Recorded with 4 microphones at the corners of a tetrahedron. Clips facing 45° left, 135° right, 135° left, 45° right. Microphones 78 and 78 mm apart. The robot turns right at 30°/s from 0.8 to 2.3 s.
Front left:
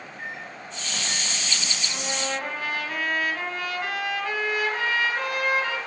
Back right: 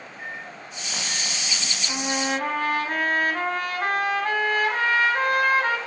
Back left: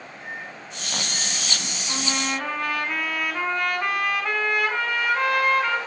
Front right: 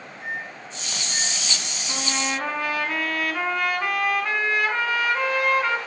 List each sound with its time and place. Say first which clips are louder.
0.2 s a microwave: back right 1 dB, front right 4 dB; 115° left, 5 m; by 1.8 s 145° left, 5 m
1.9 s a trumpet: back right 5 dB, even; 145° right, 1.8 m; by 5.8 s 135° right, 1.8 m